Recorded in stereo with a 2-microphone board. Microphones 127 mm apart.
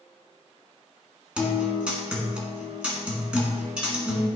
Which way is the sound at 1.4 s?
10° right (ahead or behind).